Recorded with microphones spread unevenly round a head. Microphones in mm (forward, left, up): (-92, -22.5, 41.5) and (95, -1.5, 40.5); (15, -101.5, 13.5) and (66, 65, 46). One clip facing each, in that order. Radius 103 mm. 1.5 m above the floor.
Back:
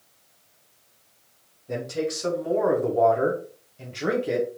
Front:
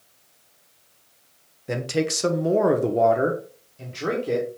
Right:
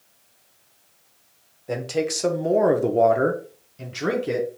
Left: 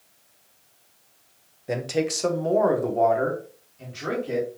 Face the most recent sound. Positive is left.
turn(degrees=-95)